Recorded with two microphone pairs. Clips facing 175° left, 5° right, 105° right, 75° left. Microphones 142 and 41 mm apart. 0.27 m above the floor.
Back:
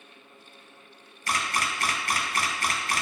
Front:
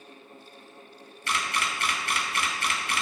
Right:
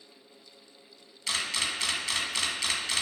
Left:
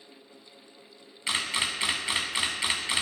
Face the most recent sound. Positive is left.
turn(degrees=135)